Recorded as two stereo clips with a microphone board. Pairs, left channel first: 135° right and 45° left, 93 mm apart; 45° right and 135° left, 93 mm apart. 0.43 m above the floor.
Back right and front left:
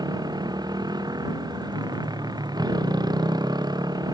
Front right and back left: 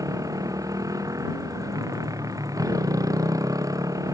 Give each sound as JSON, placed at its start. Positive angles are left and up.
{"t": 0.0, "sound": "a motorcycle", "azimuth_deg": 85}